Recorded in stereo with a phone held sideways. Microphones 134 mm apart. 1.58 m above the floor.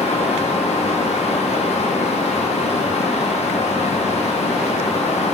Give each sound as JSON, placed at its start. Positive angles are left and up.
{"t": 0.0, "sound": "a fan", "side_deg": 60, "distance_m": 1.0}